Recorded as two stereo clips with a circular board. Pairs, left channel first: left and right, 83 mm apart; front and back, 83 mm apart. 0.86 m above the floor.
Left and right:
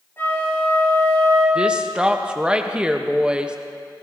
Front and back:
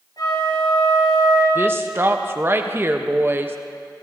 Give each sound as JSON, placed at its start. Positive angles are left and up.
{"t": 0.2, "sound": "a flute", "azimuth_deg": 30, "distance_m": 6.0}
{"t": 1.6, "sound": "a woman speaking", "azimuth_deg": -155, "distance_m": 0.8}